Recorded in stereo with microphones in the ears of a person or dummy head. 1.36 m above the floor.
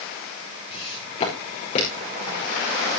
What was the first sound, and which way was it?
Footsteps, 30° left (ahead or behind).